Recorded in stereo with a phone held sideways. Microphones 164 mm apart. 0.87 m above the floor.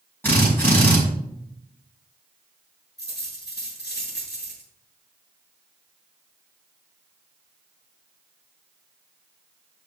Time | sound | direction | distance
0.2 | a drill | 10° left (ahead or behind) | 5.5 m
3.0 | a dropped coin | 90° left | 6 m